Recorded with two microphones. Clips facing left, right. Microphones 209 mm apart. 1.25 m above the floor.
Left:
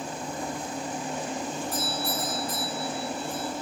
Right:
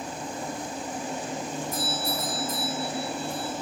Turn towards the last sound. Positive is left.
turn(degrees=80)